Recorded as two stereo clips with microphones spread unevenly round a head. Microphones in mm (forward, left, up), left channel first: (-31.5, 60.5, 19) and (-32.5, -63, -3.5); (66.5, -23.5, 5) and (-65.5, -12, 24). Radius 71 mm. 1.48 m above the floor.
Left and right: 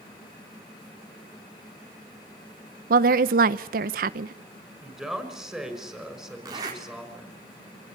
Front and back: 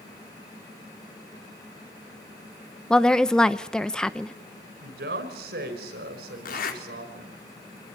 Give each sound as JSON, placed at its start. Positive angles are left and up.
{"t": 2.9, "sound": "a woman speaking", "azimuth_deg": -95, "distance_m": 0.8}
{"t": 4.8, "sound": "a woman speaking", "azimuth_deg": 180, "distance_m": 6.0}
{"t": 6.5, "sound": "a zipper", "azimuth_deg": -25, "distance_m": 4.5}